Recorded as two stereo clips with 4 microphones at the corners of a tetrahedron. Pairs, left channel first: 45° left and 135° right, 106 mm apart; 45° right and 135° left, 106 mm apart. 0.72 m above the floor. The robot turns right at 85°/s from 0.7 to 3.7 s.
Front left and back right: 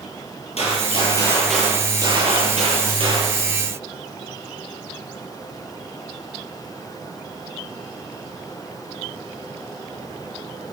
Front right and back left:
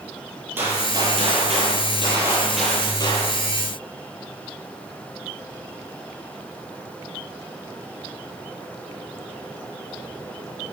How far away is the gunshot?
About 8.5 m.